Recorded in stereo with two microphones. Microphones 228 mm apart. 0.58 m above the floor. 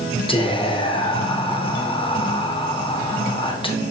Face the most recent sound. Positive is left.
turn(degrees=20)  # may be behind; listen again after turning